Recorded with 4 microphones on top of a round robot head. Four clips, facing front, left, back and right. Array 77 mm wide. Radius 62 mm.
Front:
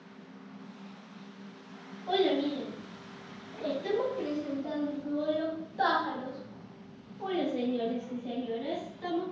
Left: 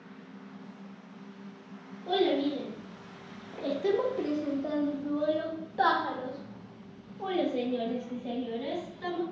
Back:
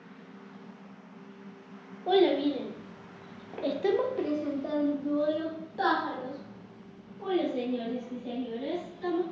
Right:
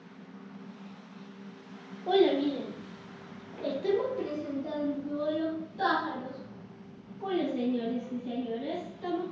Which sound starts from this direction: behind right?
A child speaking, at 2.1 s.